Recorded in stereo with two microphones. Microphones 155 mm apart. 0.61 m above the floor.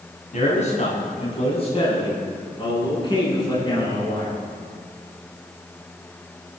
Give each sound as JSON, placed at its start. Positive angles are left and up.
{"t": 0.3, "sound": "a man speaking", "side_deg": 50, "distance_m": 5.5}